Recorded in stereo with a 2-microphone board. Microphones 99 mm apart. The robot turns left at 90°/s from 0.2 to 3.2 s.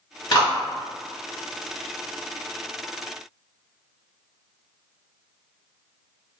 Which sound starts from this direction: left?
A clap, at 0.3 s.